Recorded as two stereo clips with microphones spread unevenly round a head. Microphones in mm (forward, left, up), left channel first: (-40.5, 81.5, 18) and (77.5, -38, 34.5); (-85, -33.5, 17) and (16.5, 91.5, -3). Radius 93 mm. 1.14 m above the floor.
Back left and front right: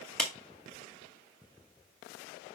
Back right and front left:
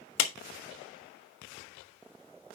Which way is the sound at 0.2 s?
135° right.